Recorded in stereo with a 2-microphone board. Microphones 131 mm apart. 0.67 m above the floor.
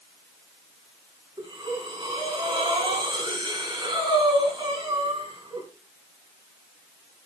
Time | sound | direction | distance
1.4 | breathing | 30° right (ahead or behind) | 4.5 m